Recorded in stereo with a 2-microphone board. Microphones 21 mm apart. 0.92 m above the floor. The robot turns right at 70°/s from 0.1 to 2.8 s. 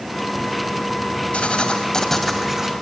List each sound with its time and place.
1.3 s writing: 115° left, 2 m; by 2.7 s 150° right, 2 m